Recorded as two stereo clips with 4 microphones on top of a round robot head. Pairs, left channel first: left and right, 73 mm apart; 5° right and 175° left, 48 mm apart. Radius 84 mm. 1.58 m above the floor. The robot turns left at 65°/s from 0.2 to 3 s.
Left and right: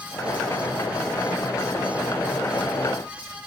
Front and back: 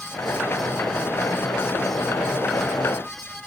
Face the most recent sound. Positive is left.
No sound to turn to.